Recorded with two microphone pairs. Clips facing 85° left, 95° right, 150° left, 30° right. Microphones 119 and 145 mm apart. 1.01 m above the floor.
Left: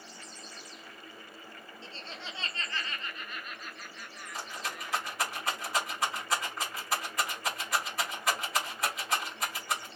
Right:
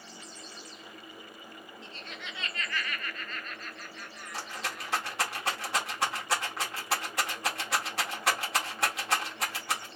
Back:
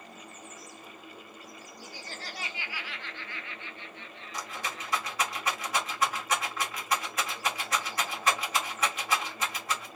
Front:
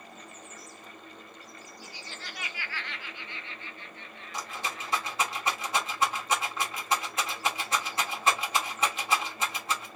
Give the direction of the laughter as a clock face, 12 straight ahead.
7 o'clock.